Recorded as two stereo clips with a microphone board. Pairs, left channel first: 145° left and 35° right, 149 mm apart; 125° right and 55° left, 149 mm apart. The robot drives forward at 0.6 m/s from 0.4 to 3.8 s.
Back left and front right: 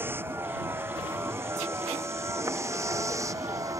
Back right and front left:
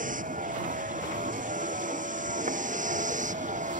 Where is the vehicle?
40° left; by 3.8 s 30° left.